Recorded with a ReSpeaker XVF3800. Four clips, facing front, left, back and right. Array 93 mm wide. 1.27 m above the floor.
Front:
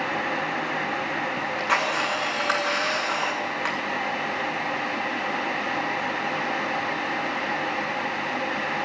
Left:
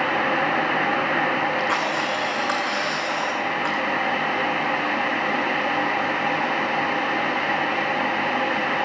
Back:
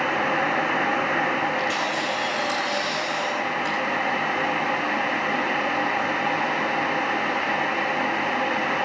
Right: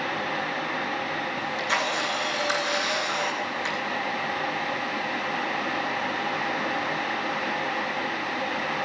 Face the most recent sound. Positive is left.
turn(degrees=35)